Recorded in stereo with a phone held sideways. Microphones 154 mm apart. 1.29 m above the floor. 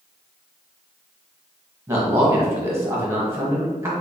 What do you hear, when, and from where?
1.9 s a man speaking: 15° right (ahead or behind), 1.5 m